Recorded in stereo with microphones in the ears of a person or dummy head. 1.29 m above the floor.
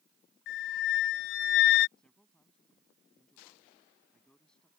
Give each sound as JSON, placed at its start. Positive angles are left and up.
{"t": 0.5, "sound": "a flute", "side_deg": 60}
{"t": 2.0, "sound": "a man speaking", "side_deg": 0}